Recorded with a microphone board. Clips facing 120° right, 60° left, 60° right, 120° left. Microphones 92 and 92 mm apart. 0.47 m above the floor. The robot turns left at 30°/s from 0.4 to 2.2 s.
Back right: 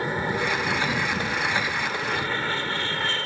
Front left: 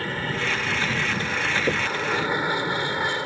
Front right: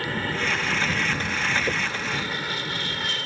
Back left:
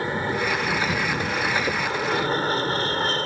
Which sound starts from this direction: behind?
An aircraft, at 0.0 s.